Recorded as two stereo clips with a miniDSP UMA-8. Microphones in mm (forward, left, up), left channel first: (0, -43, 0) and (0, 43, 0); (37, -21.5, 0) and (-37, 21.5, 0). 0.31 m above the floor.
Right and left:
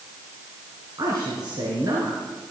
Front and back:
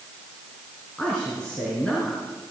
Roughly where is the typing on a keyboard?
I don't hear typing on a keyboard.